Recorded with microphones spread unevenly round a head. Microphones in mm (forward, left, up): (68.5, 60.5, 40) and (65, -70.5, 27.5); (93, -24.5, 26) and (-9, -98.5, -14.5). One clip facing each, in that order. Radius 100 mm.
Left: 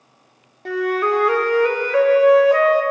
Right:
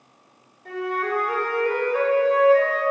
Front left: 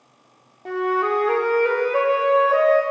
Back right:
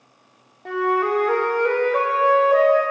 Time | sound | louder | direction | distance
0.7 | a flute | left 7 dB, back right 1 dB | 115° left | 0.9 m